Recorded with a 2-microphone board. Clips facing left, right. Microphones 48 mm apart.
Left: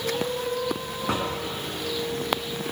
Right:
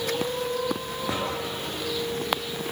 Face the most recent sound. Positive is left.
turn(degrees=70)  # may be behind; listen again after turning